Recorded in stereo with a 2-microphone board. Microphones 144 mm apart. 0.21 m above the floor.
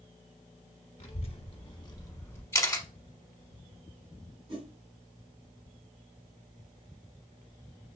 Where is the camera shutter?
25° left (ahead or behind), 0.8 m.